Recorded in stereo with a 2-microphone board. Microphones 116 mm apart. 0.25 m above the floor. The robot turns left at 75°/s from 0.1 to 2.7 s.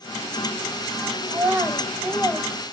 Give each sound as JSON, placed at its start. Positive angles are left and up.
{"t": 1.3, "sound": "a child speaking", "side_deg": -25, "distance_m": 0.5}